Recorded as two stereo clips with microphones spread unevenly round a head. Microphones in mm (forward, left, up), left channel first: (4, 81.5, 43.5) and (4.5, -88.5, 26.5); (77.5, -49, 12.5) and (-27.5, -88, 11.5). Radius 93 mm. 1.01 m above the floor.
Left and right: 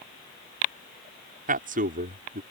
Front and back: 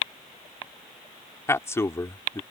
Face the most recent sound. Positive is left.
turn(degrees=-45)